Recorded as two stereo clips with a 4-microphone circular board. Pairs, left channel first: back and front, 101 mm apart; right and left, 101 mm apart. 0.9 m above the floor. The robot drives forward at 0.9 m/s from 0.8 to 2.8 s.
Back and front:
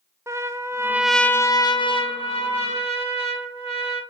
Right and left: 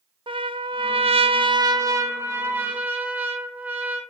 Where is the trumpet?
60° left, 0.6 m; by 4.0 s 165° left, 1.6 m.